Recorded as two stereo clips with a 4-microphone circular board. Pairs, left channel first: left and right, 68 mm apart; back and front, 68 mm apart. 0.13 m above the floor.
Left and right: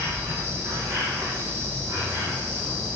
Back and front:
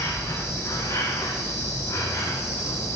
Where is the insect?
135° right, 10 m.